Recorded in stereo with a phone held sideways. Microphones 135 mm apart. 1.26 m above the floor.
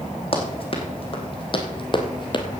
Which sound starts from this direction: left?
Running footsteps, at 0.3 s.